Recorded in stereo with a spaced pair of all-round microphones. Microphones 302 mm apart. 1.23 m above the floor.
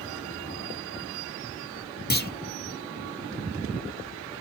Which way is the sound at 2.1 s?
30° left (ahead or behind).